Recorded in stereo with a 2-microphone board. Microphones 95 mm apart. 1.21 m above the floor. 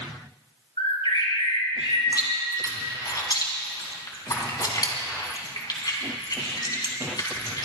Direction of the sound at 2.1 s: 45° left (ahead or behind).